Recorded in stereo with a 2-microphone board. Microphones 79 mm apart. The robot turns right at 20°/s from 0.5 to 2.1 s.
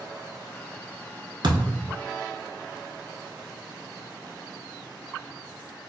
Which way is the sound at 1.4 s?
70° right (ahead or behind).